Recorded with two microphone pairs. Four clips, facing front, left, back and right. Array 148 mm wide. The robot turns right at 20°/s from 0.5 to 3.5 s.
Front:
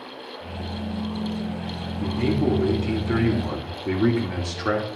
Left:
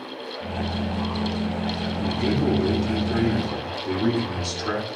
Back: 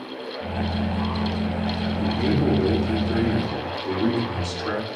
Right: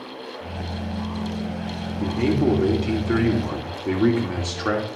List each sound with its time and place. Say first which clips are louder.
2.0 s a man speaking: right 3 dB, even; 100° right, 2.5 m; by 4.9 s 70° right, 2.5 m